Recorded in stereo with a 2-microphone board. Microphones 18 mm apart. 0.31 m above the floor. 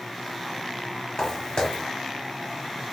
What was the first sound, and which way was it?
Footsteps, 45° left (ahead or behind).